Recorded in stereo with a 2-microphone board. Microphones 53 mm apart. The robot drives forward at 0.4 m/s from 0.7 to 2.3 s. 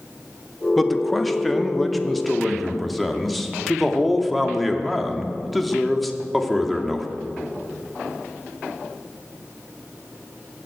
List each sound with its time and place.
0.8 s a man speaking: 5° left (ahead or behind), 0.9 m; by 7.1 s centre (ahead or behind), 1.4 m